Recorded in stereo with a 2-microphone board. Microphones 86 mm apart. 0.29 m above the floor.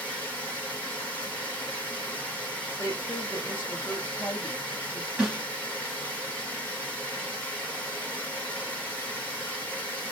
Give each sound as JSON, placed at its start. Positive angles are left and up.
{"t": 0.0, "sound": "running water", "side_deg": 20, "distance_m": 1.6}
{"t": 2.8, "sound": "a woman speaking", "side_deg": 30, "distance_m": 2.0}
{"t": 5.2, "sound": "a snare drum", "side_deg": -10, "distance_m": 1.5}